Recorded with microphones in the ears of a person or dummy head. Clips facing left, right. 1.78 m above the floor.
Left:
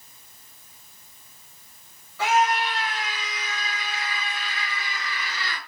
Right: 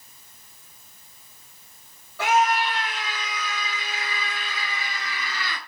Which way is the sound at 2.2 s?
55° right (ahead or behind).